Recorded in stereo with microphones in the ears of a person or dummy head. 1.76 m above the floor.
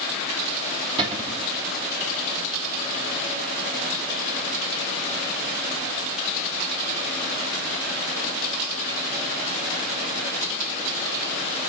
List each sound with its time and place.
1.0 s a cupboard door: 30° right (ahead or behind), 2 m